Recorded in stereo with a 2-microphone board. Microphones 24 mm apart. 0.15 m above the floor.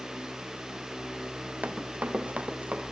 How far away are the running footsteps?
About 2.5 m.